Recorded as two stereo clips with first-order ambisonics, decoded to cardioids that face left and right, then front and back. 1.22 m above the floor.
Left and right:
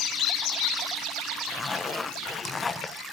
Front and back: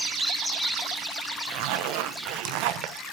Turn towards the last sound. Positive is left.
turn(degrees=170)